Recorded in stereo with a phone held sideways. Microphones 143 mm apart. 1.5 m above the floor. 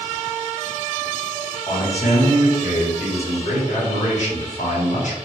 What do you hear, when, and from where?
1.7 s a man speaking: 65° left (ahead or behind), 1.4 m